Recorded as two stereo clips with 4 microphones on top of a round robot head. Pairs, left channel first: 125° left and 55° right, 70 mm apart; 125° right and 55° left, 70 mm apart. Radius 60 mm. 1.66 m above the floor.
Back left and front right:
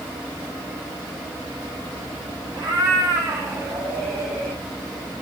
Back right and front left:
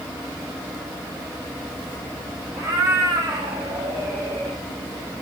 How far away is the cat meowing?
About 5 m.